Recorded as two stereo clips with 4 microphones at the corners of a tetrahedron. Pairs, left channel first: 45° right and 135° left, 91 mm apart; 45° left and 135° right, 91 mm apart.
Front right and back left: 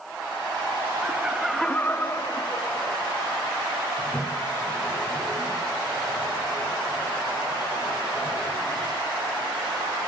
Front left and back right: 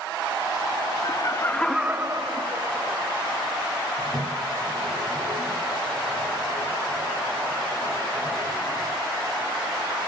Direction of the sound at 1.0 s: 70° left.